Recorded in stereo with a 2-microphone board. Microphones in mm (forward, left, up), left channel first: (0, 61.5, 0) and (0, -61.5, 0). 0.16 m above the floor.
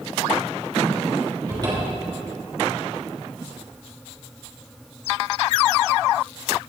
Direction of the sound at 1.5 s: 35° right (ahead or behind).